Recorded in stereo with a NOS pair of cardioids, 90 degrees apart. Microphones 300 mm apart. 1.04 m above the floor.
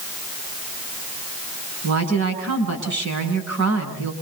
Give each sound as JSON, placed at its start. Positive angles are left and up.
{"t": 1.8, "sound": "a woman speaking", "azimuth_deg": -65, "distance_m": 8.5}